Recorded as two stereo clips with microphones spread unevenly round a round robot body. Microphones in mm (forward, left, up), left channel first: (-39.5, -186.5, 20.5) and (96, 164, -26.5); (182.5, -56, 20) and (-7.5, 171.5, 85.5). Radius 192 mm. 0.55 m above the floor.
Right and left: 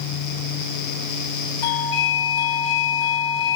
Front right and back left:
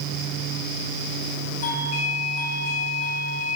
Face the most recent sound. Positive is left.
turn(degrees=-115)